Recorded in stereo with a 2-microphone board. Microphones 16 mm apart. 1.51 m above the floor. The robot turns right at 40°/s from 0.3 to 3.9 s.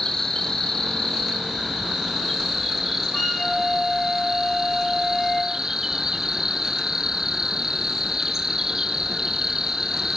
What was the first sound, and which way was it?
An insect, 60° left.